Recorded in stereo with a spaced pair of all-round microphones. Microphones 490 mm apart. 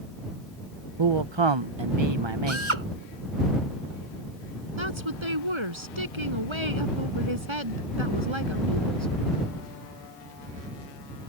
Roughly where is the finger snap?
No finger snap in this recording.